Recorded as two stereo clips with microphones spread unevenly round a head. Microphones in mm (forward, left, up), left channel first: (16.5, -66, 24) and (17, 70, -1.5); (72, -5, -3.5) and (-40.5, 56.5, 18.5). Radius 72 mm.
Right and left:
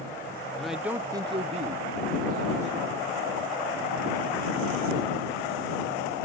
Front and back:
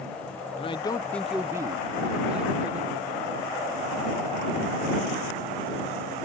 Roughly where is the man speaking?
Ahead.